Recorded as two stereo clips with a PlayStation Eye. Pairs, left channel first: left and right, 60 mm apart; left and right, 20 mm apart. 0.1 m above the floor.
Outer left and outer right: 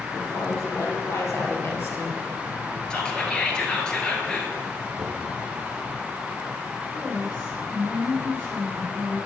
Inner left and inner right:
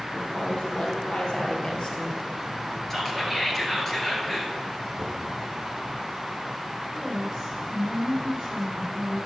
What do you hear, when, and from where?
0.1 s a woman speaking: 60° left (ahead or behind), 3 m; by 2.8 s 25° left (ahead or behind), 1.4 m
2.9 s whispering: 15° left (ahead or behind), 1.7 m
5.0 s knocking: 10° right (ahead or behind), 1.9 m
6.9 s a woman speaking: 35° right (ahead or behind), 3 m